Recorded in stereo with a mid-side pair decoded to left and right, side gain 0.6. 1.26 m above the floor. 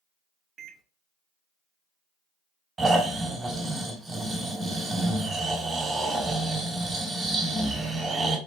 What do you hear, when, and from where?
0.6 s a microwave: 40° right, 0.8 m
2.8 s snoring: 20° right, 2 m